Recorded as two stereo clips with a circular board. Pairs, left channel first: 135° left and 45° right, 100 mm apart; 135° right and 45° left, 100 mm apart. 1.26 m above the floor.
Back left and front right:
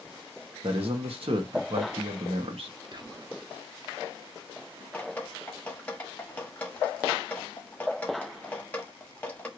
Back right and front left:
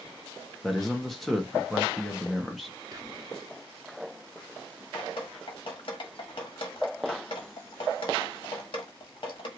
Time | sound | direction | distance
0.6 | a man speaking | 45° right | 1.1 m
2.9 | whispering | 5° right | 0.8 m
4.9 | dripping | 150° right | 1.1 m